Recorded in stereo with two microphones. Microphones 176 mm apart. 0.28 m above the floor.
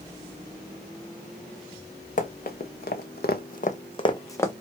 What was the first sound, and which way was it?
Running footsteps, 50° left (ahead or behind).